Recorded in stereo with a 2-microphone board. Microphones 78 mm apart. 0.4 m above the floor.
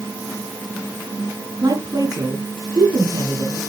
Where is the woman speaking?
55° right (ahead or behind), 3.5 m.